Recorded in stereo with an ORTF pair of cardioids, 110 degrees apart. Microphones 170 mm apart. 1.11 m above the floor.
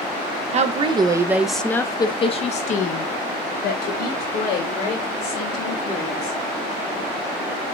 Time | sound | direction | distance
0.5 | a woman speaking | 45° right | 0.8 m